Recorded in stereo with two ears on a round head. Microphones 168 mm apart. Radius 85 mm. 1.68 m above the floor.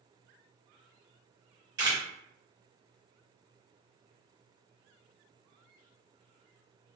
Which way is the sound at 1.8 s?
20° right (ahead or behind).